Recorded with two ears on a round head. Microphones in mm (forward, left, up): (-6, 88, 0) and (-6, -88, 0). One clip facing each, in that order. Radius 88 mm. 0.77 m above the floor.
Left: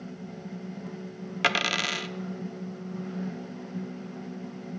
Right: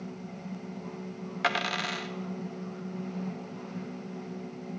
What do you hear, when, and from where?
1.4 s a dropped coin: 40° left (ahead or behind), 0.7 m